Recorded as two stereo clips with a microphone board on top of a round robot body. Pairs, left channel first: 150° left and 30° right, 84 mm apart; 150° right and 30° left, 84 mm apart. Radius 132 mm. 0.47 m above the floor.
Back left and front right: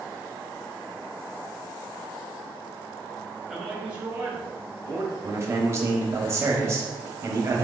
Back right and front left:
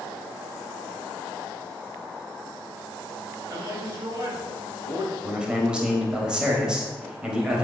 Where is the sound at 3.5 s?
55° left, 1.6 m; by 5.1 s 5° left, 1.7 m.